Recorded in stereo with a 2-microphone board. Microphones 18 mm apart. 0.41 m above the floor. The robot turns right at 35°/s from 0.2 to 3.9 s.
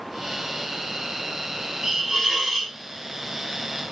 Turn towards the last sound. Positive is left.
turn(degrees=0)